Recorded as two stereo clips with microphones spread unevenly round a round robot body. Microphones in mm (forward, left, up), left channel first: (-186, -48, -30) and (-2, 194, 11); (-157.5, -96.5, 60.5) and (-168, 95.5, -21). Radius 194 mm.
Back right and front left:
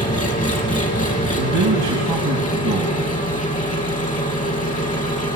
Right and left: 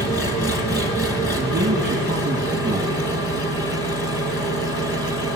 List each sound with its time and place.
0.0 s an engine running: 50° right, 2 m
1.4 s a man speaking: 20° left, 2.5 m